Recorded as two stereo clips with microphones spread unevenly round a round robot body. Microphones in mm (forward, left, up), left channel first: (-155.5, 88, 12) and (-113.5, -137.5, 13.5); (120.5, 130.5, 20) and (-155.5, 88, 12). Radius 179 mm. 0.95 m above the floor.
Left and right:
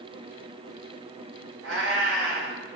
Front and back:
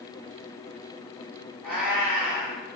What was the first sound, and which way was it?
A cat meowing, 75° right.